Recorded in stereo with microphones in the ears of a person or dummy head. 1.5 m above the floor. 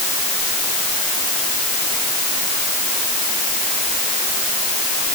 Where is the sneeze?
I don't hear a sneeze.